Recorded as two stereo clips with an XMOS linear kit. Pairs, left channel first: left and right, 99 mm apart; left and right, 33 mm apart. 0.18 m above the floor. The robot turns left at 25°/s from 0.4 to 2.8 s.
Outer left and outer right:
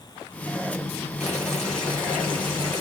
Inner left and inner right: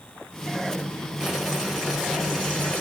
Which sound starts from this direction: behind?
Boiling, at 1.2 s.